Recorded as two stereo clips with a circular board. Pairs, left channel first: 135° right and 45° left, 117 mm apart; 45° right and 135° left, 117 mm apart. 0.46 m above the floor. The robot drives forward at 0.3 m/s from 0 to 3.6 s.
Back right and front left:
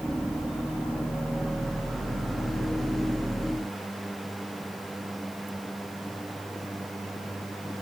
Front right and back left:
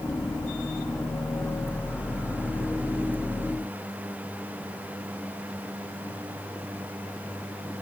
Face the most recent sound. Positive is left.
No sound to turn to.